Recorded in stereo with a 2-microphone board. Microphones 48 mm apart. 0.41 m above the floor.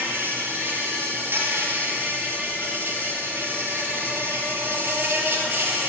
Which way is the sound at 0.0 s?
45° right (ahead or behind).